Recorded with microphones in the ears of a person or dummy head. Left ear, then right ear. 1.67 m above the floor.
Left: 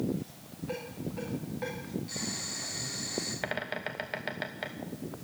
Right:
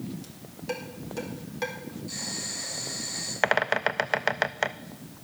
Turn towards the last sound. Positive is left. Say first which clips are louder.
# right 11 dB
turn(degrees=-40)  # may be behind; listen again after turning